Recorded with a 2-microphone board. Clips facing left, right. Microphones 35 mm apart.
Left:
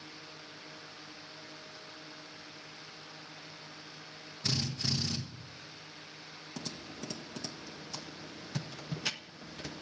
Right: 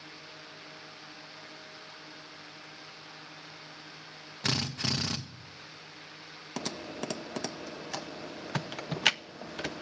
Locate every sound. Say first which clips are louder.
4.4 s a drill: right 3 dB; 60° right (ahead or behind), 1.5 m
6.6 s typing on a keyboard: right 7 dB; 60° right (ahead or behind), 0.5 m